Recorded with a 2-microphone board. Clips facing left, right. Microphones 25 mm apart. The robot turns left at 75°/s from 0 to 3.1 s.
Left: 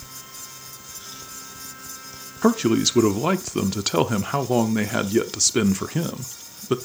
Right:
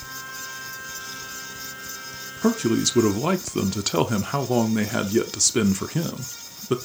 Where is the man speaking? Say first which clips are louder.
Left 2 dB; 25° left (ahead or behind), 0.7 m; by 6.8 s 5° left (ahead or behind), 0.7 m.